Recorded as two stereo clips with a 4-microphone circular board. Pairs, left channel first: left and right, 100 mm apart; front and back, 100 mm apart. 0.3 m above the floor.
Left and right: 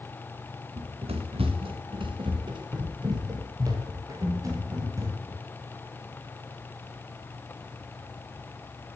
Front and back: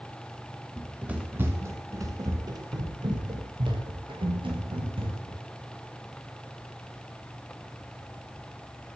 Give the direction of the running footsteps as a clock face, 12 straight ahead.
3 o'clock.